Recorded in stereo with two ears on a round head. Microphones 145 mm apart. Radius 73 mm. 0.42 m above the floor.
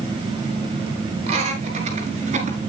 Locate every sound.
1.3 s laughter: 40° right (ahead or behind), 5 m; by 2.6 s 50° right (ahead or behind), 5 m